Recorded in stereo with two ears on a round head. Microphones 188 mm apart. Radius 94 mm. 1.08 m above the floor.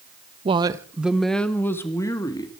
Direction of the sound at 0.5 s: 30° right (ahead or behind).